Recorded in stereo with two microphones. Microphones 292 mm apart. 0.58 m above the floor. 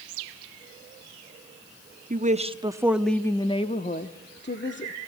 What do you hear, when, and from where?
2.1 s a woman speaking: 30° right (ahead or behind), 1.1 m; by 4.9 s 45° left (ahead or behind), 1.7 m